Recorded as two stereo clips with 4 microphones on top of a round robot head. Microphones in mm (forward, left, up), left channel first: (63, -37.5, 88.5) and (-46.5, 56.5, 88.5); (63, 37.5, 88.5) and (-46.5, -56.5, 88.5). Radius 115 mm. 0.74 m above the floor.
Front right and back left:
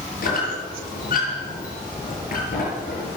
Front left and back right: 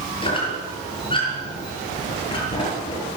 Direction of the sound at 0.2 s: 15° right.